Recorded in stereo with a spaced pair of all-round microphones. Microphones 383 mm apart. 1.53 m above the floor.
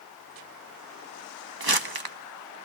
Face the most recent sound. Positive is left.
turn(degrees=-70)  # may be behind; listen again after turning